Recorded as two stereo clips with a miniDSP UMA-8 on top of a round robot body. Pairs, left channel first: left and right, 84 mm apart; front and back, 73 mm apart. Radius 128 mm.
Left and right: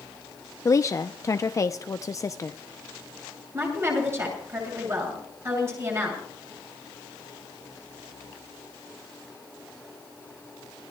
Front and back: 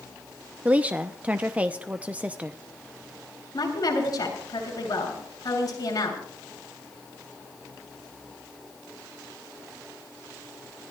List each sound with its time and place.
0.7 s a woman speaking: 115° left, 0.7 m
3.5 s a woman speaking: 35° right, 7 m